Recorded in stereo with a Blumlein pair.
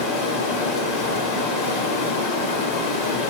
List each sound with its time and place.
0.0 s running water: 45° left, 1.3 m